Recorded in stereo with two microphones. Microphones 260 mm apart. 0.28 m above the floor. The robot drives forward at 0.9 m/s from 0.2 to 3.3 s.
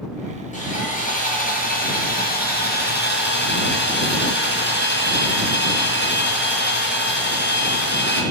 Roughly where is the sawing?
Left.